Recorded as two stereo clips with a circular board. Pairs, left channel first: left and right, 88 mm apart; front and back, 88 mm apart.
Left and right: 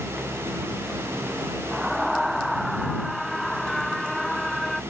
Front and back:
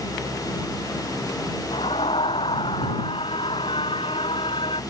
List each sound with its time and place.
1.7 s a scream: straight ahead; by 4.8 s 5° left